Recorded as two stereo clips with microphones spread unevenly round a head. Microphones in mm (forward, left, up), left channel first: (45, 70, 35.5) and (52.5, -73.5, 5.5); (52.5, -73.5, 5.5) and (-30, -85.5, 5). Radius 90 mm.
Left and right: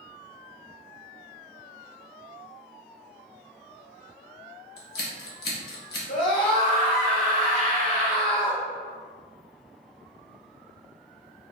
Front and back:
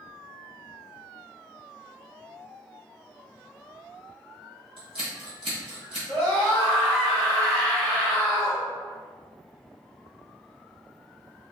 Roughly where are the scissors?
Behind left.